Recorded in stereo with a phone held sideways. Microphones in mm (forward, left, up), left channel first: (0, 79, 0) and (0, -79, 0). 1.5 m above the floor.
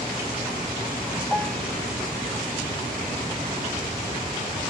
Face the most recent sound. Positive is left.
turn(degrees=10)  # may be behind; listen again after turning